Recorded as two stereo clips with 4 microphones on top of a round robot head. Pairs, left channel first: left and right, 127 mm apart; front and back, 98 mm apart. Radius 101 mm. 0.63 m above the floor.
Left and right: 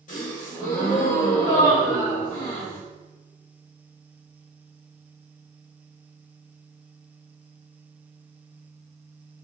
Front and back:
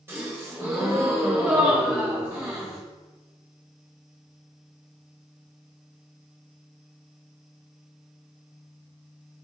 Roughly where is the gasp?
Behind left.